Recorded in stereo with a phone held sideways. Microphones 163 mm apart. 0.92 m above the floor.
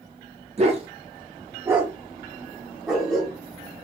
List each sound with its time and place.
0.6 s a dog barking: 40° right (ahead or behind), 0.6 m; by 3.4 s 5° left (ahead or behind), 1.5 m